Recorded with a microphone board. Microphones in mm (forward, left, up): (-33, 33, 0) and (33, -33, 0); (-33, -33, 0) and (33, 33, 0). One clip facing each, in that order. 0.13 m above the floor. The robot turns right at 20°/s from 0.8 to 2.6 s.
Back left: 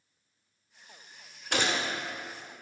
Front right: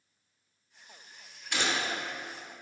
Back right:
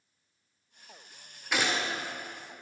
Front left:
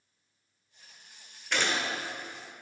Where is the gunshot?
140° left, 0.9 m; by 1.9 s 150° left, 0.9 m.